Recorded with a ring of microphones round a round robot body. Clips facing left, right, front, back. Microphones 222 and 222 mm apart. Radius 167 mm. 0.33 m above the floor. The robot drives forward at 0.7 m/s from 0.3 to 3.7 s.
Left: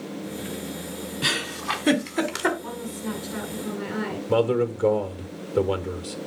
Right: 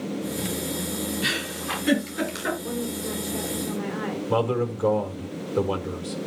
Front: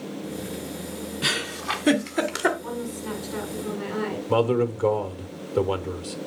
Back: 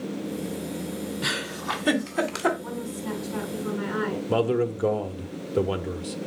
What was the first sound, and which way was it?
A giggle, 55° left.